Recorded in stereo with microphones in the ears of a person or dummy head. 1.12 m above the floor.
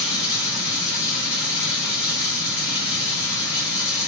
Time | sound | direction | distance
0.0 | running water | 70° left (ahead or behind) | 1.6 m